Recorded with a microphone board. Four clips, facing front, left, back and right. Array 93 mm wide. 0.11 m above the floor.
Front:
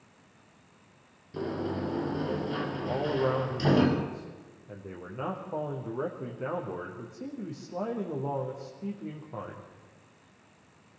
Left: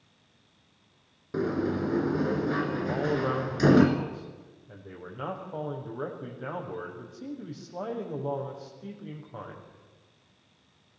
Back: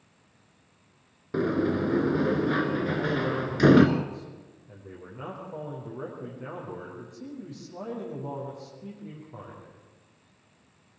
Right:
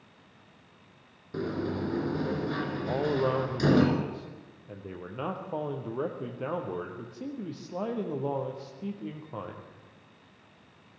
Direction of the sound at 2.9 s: 65° right.